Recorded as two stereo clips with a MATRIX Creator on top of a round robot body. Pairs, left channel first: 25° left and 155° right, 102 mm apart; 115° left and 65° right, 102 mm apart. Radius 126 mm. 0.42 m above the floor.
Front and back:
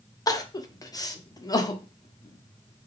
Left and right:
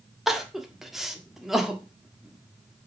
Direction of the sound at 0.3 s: 20° left.